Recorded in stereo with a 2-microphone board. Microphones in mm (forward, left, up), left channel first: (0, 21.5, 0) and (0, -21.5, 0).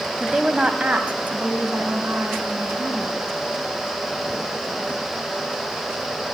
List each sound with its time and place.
0.2 s a woman speaking: 5° right (ahead or behind), 1.0 m; by 3.4 s 65° right (ahead or behind), 2.5 m